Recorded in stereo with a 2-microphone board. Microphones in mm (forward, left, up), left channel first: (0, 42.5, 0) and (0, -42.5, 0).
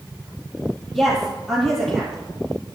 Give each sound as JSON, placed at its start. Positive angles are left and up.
{"t": 0.9, "sound": "a woman speaking", "side_deg": 5, "distance_m": 9.5}